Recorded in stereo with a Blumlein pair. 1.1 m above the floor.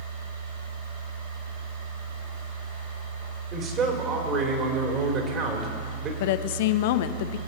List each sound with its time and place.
0.0 s a machine running: 55° right, 5.5 m
3.5 s a man speaking: 30° right, 3 m
6.2 s a woman speaking: 50° left, 0.8 m